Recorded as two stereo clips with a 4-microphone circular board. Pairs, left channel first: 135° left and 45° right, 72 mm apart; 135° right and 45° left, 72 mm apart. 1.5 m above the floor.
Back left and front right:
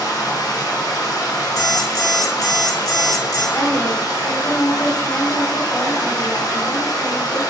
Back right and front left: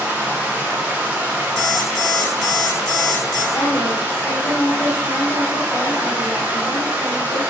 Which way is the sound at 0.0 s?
110° left.